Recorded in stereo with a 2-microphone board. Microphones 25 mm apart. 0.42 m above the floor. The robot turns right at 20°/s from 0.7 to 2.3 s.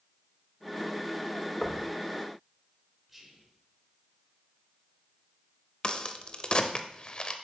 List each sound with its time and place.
1.6 s knocking: 10° left (ahead or behind), 0.7 m; by 1.9 s 5° left (ahead or behind), 0.7 m
3.1 s whispering: 5° right (ahead or behind), 1.2 m
5.8 s a crack: 35° left (ahead or behind), 0.6 m